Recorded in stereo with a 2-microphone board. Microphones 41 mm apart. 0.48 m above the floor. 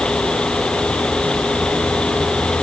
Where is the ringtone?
I don't hear a ringtone.